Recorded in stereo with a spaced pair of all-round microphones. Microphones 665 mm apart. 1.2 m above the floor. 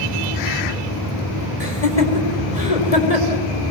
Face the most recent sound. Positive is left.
turn(degrees=60)  # may be behind; listen again after turning